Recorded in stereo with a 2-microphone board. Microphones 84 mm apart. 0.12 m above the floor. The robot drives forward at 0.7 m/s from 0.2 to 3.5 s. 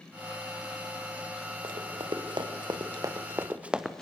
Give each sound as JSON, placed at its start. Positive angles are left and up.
{"t": 1.6, "sound": "running footsteps", "side_deg": -80, "distance_m": 3.0}